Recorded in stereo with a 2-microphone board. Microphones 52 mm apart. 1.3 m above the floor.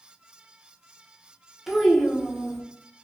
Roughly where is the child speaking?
Centre.